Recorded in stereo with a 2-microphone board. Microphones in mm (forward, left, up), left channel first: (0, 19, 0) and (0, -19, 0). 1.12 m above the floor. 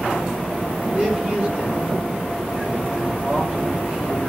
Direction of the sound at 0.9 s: 25° right (ahead or behind).